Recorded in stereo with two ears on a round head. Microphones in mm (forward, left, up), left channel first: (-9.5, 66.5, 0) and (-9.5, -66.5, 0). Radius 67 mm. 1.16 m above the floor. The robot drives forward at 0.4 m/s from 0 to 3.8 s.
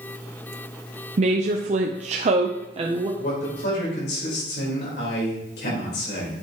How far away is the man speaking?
About 4 m.